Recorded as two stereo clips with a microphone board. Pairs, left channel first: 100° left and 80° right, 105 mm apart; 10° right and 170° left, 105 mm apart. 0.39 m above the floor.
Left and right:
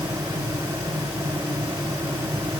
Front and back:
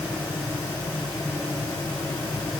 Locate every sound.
Only background noise.